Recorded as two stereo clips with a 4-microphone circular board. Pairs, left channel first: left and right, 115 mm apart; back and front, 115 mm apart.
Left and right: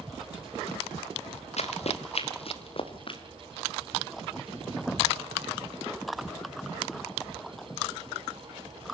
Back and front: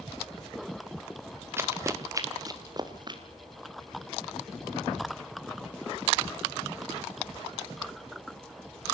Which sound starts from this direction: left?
Running footsteps, at 1.6 s.